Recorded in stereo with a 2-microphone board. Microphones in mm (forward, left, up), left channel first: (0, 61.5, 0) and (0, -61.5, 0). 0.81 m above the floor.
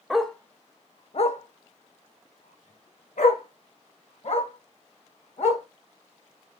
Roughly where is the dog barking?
Centre.